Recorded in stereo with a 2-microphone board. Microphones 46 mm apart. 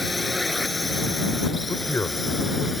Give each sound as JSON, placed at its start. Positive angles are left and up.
{"t": 0.0, "sound": "a drone", "side_deg": 0}
{"t": 1.7, "sound": "a man speaking", "side_deg": 55}